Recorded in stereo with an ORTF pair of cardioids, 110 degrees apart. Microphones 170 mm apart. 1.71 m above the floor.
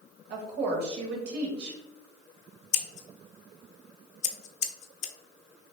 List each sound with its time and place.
0.3 s a woman speaking: 70° right, 1.4 m
2.7 s scissors: 45° left, 0.6 m